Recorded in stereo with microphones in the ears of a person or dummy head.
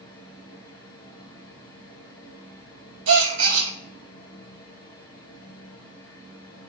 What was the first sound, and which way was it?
A fan, 10° left (ahead or behind).